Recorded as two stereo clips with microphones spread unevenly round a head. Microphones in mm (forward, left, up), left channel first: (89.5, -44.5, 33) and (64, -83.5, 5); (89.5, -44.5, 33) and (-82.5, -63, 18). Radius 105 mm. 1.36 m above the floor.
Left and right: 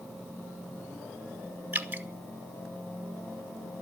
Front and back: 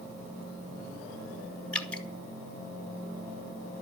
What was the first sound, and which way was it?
Dripping, 75° right.